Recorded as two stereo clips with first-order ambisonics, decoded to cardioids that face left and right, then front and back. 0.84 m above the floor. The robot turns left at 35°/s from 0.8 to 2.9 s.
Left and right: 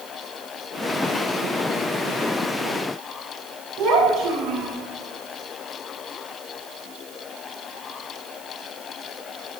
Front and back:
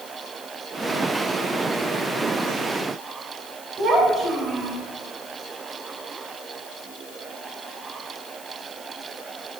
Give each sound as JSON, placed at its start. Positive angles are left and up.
{"t": 3.8, "sound": "a child speaking", "azimuth_deg": -110, "distance_m": 2.5}